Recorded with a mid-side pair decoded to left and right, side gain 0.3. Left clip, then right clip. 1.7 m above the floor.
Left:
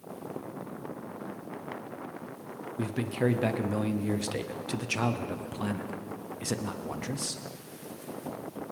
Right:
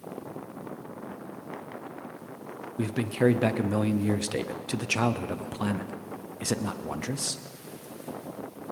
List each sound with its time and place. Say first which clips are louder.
2.8 s a man speaking: right 4 dB; 40° right, 0.8 m